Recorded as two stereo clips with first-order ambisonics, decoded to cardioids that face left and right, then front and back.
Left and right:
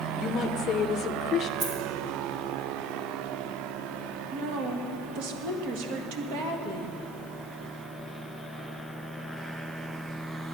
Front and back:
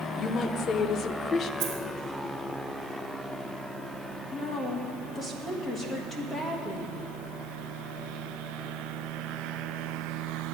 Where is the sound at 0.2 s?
45° left, 0.5 m.